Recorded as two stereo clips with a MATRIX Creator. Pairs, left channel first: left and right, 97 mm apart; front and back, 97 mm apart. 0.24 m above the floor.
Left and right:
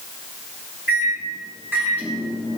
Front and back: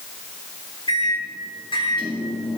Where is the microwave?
20° right, 2.5 m.